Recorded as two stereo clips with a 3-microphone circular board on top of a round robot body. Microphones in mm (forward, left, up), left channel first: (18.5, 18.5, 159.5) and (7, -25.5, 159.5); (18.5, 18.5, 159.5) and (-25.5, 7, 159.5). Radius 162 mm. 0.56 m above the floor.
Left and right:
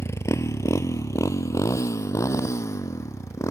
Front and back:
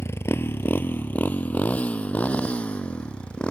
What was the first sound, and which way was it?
A motorcycle, 45° left.